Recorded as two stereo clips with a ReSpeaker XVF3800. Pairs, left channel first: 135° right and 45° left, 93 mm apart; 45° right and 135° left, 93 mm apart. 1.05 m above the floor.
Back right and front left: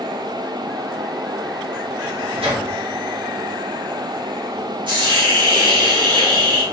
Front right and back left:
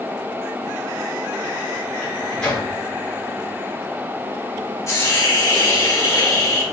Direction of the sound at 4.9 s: 15° left.